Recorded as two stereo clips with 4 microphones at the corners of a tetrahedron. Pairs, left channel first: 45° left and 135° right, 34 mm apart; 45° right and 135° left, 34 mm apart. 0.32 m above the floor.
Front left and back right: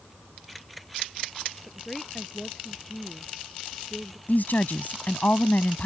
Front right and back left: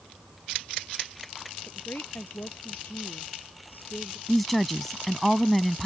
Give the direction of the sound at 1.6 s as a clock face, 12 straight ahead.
1 o'clock.